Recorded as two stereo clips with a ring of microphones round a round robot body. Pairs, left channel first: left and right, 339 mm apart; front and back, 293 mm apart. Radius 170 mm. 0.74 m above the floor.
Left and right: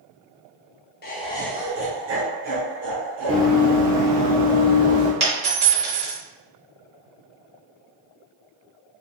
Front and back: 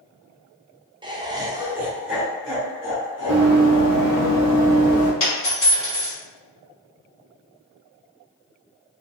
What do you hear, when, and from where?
1.0 s laughter: 120° left, 0.7 m; by 4.3 s 85° right, 2 m
3.3 s running footsteps: 155° right, 0.9 m; by 5.1 s 60° right, 1.9 m
5.2 s a dropped coin: 50° right, 1.9 m